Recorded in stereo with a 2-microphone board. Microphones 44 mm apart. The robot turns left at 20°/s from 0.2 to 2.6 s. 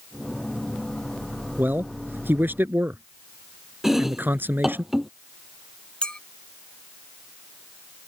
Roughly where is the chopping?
Centre.